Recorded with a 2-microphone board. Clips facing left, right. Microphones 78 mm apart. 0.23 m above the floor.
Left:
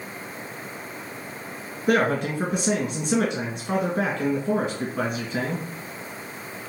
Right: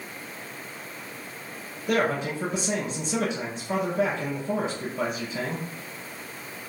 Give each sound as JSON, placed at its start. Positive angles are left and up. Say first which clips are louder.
{"t": 1.9, "sound": "a man speaking", "louder": "left 3 dB", "side_deg": 60, "distance_m": 2.5}